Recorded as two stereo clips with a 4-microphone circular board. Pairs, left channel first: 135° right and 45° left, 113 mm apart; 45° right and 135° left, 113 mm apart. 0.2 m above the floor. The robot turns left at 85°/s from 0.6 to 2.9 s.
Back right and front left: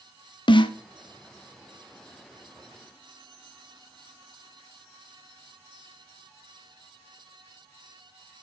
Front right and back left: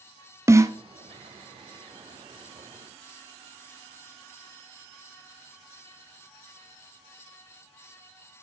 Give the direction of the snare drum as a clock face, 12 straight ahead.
6 o'clock.